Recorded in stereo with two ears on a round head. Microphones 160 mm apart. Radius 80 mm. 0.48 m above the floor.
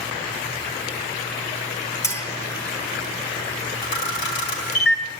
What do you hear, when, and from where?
2.0 s a clink: 20° left (ahead or behind), 2 m
3.8 s a camera shutter: 70° left (ahead or behind), 3 m